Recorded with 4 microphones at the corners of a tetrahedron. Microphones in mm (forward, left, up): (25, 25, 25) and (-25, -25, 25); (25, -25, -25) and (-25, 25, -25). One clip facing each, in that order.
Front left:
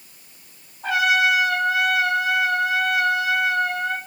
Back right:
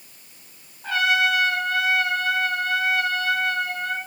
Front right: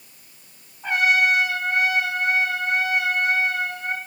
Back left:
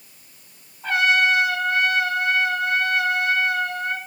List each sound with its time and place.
0.8 s a trumpet: 30° left, 7 m